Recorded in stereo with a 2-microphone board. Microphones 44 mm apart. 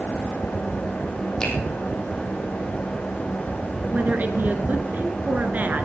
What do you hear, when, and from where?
1.4 s a finger snap: 20° left (ahead or behind), 4 m
3.9 s a woman speaking: 40° right (ahead or behind), 1.7 m